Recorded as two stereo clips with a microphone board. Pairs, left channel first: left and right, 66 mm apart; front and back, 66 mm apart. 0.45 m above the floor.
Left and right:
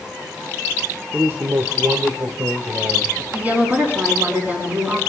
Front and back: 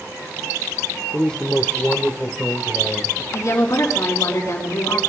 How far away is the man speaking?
About 1.0 m.